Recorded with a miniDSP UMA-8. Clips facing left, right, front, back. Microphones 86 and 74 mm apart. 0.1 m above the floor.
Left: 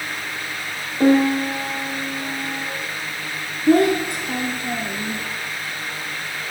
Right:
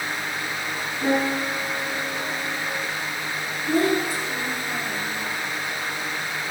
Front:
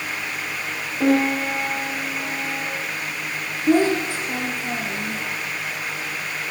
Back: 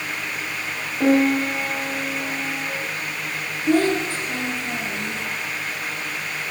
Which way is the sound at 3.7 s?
70° left.